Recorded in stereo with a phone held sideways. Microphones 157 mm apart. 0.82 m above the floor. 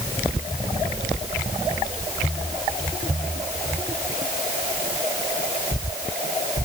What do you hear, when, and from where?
Only background noise.